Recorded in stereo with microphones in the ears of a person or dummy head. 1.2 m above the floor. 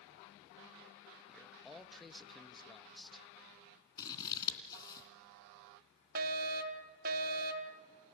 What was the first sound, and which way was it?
A man speaking, centre (ahead or behind).